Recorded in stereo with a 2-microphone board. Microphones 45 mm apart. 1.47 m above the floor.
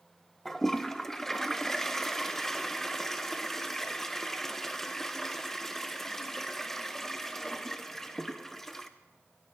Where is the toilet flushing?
5° left (ahead or behind), 0.6 m.